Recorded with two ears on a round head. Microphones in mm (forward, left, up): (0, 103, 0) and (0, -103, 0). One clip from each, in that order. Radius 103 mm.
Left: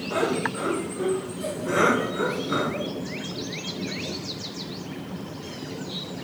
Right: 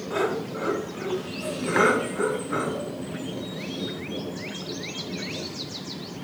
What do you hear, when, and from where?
0.1 s laughter: 15° right (ahead or behind), 1.4 m; by 2.9 s 35° left (ahead or behind), 2.5 m